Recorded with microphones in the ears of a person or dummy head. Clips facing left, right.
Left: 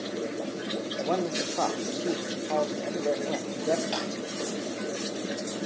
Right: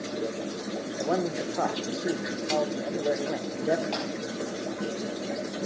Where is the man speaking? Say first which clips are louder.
Right 1 dB; 5° right (ahead or behind), 1.5 m.